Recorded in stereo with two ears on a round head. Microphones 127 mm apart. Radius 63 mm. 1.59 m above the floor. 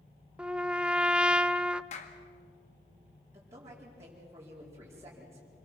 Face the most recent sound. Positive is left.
turn(degrees=-20)  # may be behind; listen again after turning